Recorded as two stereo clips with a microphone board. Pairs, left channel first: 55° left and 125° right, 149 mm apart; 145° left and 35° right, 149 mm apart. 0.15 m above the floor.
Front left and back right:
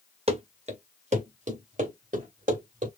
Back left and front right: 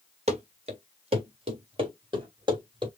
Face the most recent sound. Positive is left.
turn(degrees=-90)